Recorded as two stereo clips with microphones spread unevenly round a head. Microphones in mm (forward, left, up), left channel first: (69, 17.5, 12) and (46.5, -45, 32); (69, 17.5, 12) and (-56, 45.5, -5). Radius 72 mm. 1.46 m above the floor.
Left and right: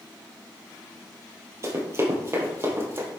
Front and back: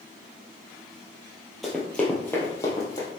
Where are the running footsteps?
95° right, 2.5 m; by 3.1 s 70° right, 3.5 m.